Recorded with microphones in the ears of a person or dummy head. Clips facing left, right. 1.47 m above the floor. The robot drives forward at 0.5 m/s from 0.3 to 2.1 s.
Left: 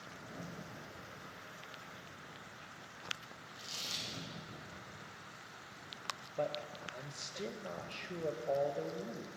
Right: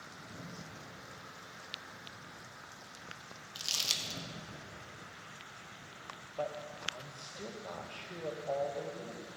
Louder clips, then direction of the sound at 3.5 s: Right 3 dB; 85° right.